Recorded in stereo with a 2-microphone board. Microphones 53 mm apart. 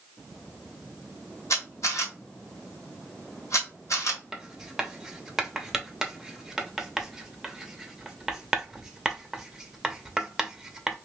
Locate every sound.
1.5 s a camera shutter: 75° left (ahead or behind), 1.6 m
4.3 s writing: 10° right (ahead or behind), 0.7 m